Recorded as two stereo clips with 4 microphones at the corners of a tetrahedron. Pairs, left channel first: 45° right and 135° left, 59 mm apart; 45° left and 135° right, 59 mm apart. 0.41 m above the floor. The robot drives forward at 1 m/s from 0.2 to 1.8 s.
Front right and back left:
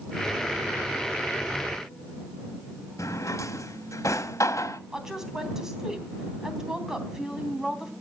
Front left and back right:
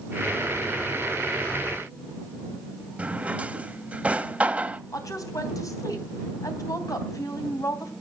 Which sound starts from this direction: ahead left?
A woman speaking, at 4.9 s.